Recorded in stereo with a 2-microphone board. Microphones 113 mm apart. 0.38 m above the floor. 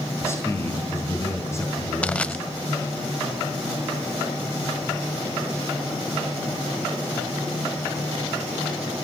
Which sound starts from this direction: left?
A man speaking, at 0.2 s.